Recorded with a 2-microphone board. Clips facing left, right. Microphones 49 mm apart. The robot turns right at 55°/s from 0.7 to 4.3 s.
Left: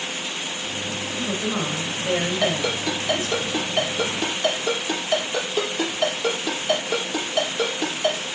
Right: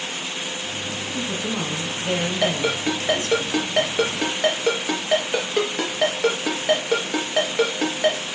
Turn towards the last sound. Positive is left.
turn(degrees=-70)  # may be behind; listen again after turning